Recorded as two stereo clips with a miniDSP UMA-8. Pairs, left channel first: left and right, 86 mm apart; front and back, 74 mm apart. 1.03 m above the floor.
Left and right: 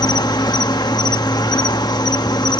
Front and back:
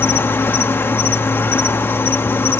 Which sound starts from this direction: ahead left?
An insect, at 0.0 s.